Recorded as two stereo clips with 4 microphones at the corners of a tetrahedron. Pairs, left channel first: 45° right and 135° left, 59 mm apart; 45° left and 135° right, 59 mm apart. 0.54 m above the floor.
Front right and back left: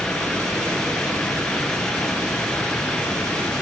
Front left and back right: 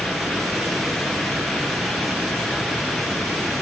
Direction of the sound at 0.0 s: 65° right.